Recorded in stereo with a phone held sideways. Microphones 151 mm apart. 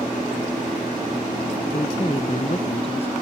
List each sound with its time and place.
1.7 s a man speaking: 40° left (ahead or behind)